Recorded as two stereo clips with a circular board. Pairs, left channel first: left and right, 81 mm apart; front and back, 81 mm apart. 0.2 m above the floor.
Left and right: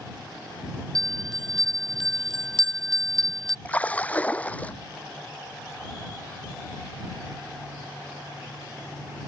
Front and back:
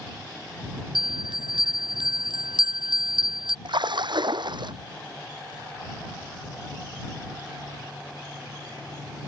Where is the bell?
175° left.